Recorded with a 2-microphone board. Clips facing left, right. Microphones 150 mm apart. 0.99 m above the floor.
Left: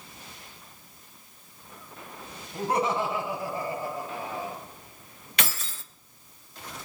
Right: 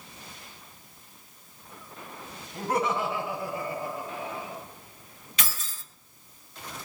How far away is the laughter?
About 8 m.